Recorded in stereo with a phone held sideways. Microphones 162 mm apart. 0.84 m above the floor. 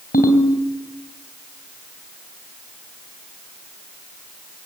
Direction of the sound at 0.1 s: 65° left (ahead or behind).